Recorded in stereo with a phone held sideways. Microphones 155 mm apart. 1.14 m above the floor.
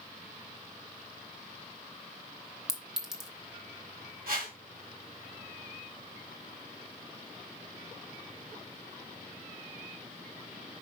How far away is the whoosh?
About 3.5 m.